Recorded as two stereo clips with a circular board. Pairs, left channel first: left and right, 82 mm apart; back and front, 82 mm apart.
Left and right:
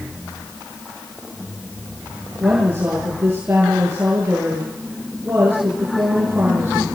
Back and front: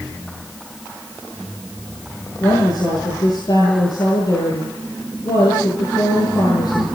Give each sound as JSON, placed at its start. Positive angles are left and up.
{"t": 2.4, "sound": "a woman speaking", "azimuth_deg": -150, "distance_m": 8.5}